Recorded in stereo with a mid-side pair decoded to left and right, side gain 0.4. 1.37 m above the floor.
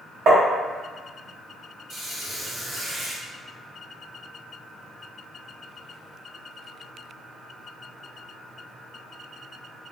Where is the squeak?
65° right, 1.7 m.